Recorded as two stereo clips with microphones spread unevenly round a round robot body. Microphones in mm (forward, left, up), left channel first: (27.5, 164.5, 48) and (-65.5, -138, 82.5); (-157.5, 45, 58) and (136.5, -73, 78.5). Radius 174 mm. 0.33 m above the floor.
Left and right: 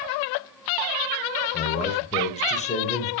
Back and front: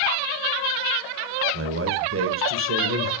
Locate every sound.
1.5 s a man speaking: 15° left, 1.7 m